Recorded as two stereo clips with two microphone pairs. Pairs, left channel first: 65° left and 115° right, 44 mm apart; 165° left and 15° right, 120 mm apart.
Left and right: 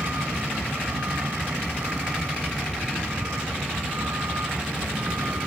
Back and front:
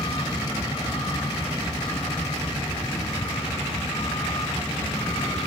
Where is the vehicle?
140° right.